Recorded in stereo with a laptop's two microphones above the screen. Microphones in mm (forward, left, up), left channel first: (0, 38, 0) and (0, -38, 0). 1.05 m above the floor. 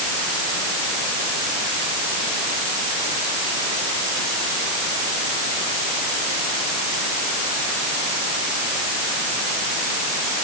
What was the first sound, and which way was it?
Only background noise.